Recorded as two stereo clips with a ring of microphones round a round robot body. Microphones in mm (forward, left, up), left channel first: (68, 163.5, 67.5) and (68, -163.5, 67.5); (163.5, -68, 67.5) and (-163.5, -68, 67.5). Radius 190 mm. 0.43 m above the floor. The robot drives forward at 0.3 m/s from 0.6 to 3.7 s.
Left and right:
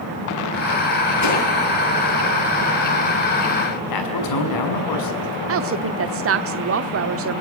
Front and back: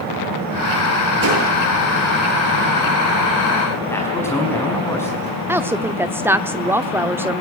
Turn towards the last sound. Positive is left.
turn(degrees=-100)